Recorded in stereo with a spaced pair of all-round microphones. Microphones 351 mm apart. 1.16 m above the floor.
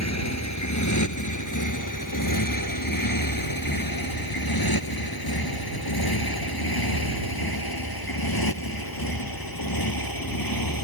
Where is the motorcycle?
50° left (ahead or behind); by 10.8 s 70° left (ahead or behind).